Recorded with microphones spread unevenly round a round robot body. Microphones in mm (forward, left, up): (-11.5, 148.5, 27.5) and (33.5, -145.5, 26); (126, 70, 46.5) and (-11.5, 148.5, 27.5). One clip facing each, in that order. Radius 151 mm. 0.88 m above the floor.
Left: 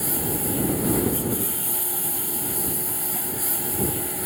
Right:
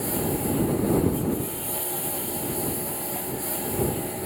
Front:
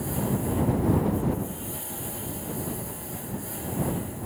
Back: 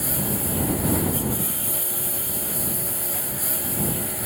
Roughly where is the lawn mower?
Behind left.